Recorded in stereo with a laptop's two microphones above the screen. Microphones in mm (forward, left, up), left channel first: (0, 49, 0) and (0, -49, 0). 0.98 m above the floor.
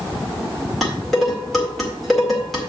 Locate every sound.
0.8 s dishes clattering: centre (ahead or behind), 2.0 m